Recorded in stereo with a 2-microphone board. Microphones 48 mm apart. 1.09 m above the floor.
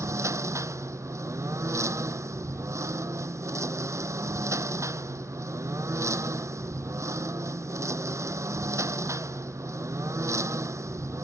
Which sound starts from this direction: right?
A lawn mower, at 0.0 s.